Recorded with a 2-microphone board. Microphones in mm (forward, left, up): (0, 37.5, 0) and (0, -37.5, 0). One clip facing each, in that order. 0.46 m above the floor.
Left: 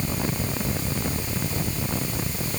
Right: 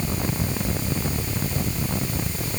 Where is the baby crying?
I don't hear a baby crying.